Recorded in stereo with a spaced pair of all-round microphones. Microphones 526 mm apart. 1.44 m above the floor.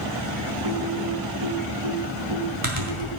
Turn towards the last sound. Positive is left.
turn(degrees=-70)  # may be behind; listen again after turning